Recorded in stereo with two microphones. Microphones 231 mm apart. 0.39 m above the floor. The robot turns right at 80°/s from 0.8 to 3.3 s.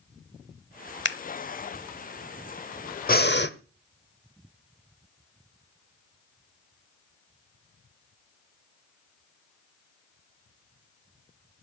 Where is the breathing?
40° left (ahead or behind), 0.9 m; by 3.5 s 50° left (ahead or behind), 0.9 m.